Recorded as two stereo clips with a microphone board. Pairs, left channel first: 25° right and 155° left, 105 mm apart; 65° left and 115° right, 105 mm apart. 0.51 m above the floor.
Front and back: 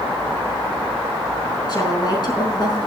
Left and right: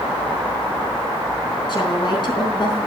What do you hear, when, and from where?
1.7 s a woman speaking: 25° left, 4.5 m